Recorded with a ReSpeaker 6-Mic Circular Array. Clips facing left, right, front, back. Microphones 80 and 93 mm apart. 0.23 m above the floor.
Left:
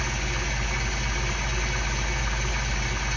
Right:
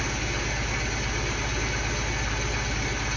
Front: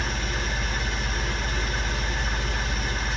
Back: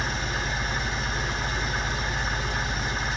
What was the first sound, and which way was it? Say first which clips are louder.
An engine running: right 1 dB, back 1 dB; straight behind.